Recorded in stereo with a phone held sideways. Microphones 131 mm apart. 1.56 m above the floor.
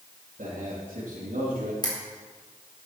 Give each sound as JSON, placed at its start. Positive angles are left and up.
{"t": 0.4, "sound": "a man speaking", "side_deg": -85, "distance_m": 3.5}
{"t": 1.8, "sound": "a camera shutter", "side_deg": 30, "distance_m": 4.5}